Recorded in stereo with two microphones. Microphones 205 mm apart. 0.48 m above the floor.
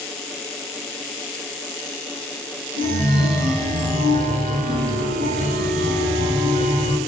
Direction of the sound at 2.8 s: 40° right (ahead or behind).